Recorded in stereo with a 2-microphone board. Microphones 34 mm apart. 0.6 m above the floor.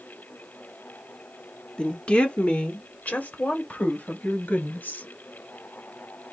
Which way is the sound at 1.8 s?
30° left (ahead or behind).